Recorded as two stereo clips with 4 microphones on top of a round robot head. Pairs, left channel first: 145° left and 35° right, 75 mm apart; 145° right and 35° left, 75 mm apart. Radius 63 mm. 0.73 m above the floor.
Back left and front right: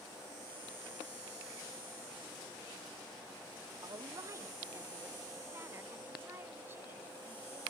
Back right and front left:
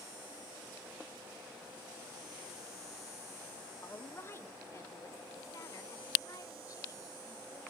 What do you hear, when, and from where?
3.8 s a woman speaking: 80° right, 1.2 m; by 7.6 s 100° right, 3.5 m